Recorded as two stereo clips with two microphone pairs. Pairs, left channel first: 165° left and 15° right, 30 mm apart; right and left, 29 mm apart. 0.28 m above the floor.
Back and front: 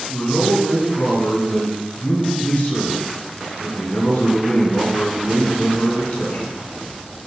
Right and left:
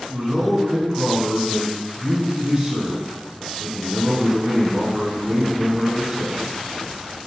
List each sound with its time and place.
0.1 s a man speaking: 160° left, 2.5 m